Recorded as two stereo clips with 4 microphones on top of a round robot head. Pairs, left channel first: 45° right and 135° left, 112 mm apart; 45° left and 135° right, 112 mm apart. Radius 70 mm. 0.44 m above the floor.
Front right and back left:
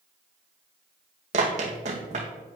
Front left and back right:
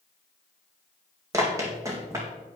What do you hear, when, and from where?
1.3 s running footsteps: 160° left, 1.8 m